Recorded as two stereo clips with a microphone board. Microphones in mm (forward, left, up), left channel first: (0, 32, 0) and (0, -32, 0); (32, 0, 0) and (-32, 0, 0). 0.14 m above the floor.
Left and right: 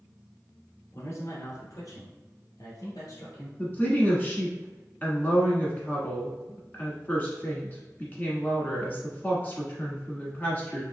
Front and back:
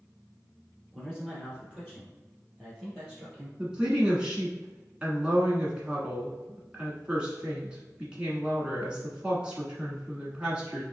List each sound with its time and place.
0.9 s a man speaking: 100° left, 1.3 m; by 3.5 s 110° left, 3 m
3.6 s a woman speaking: 120° left, 1.2 m